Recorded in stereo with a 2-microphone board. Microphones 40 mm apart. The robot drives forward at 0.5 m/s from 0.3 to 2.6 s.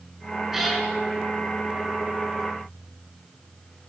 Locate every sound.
0.5 s a cat meowing: 10° right (ahead or behind), 6 m